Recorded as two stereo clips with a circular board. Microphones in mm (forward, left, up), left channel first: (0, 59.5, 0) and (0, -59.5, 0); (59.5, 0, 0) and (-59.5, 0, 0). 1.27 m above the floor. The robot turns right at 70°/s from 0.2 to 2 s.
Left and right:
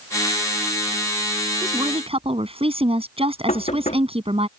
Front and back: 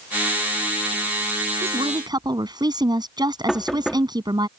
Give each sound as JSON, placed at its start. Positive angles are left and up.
{"t": 1.6, "sound": "a woman speaking", "azimuth_deg": -155}
{"t": 3.5, "sound": "knocking", "azimuth_deg": 85}